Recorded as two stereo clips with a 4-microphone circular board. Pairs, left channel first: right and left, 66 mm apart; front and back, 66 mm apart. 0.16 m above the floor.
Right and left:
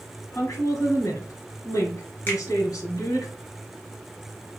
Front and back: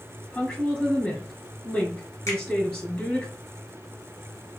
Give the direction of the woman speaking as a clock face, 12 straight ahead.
2 o'clock.